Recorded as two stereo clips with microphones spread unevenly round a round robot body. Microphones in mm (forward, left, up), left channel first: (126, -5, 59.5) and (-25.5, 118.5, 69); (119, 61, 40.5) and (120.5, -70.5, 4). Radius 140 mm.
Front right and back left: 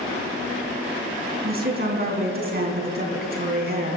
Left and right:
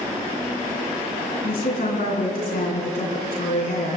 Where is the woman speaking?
110° left, 3 m.